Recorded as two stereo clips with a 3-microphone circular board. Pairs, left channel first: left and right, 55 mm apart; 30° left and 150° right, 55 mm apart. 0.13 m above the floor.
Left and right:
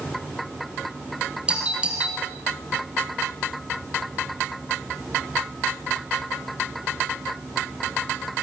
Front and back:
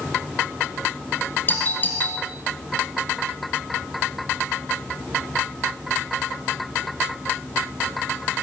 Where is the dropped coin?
No dropped coin in this recording.